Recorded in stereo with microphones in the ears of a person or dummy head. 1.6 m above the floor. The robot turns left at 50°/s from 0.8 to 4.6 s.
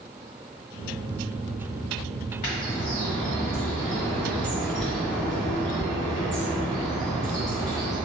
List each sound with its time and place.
2.4 s a bird: 115° left, 1.6 m; by 8.0 s 5° left, 1.6 m